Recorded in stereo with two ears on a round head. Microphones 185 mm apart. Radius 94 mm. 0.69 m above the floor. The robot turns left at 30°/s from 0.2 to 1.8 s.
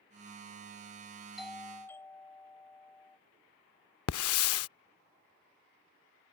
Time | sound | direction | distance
1.4 | a doorbell | centre (ahead or behind) | ?
4.1 | a hiss | 75° left (ahead or behind) | ?